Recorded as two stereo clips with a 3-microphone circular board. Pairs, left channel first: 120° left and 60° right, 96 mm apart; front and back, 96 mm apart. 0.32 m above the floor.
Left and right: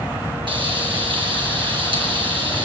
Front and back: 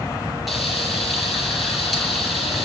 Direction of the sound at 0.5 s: 90° right.